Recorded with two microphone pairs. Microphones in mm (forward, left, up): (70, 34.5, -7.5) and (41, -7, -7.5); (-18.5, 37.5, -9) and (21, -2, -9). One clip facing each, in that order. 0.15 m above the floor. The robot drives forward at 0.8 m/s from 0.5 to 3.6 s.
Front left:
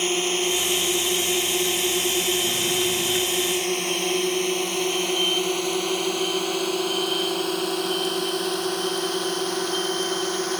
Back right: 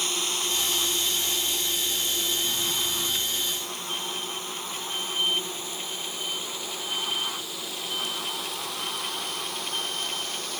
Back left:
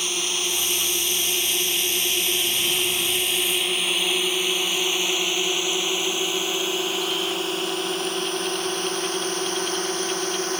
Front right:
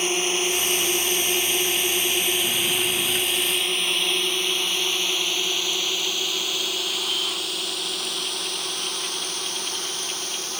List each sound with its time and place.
0.0 s a drone: 10° left; by 10.6 s 85° left